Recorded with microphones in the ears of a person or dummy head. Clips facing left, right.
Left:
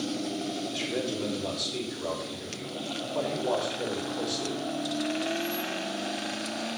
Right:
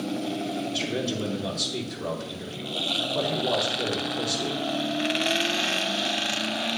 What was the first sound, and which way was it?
A man speaking, 10° right (ahead or behind).